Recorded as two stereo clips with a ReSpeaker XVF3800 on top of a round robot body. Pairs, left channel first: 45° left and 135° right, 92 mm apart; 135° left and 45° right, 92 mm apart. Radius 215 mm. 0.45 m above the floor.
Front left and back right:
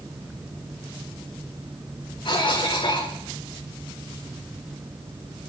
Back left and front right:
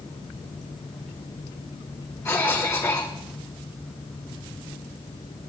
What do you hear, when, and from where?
2.2 s a cough: 75° left, 7.5 m